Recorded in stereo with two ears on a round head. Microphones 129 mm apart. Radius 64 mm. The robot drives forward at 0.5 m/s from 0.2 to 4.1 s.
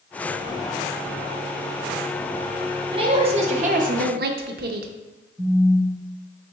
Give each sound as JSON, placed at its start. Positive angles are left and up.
{"t": 2.9, "sound": "a woman speaking", "side_deg": -35, "distance_m": 0.9}
{"t": 5.4, "sound": "a phone buzzing", "side_deg": -15, "distance_m": 0.7}